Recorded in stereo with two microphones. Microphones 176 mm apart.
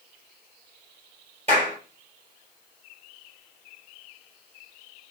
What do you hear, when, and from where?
1.5 s a clap: 40° right (ahead or behind), 3 m